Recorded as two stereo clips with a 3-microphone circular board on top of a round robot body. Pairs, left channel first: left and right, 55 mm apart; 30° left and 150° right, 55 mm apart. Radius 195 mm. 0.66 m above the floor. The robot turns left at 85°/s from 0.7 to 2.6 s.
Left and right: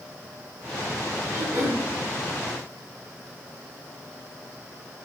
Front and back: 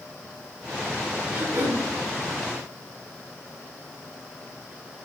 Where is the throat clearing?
100° right, 5 m; by 1.9 s 150° right, 5 m.